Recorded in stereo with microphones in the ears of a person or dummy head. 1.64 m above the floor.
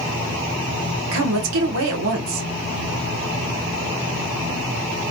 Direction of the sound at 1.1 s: 80° right.